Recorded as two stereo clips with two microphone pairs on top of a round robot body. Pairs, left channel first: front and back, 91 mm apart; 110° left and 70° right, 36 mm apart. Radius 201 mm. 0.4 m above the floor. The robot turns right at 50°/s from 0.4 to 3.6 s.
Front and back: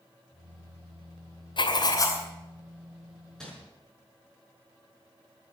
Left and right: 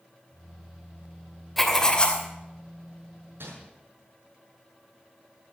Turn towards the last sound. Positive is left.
turn(degrees=-75)